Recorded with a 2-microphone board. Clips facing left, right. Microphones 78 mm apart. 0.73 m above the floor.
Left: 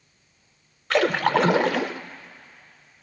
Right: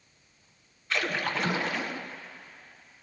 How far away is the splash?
About 0.9 m.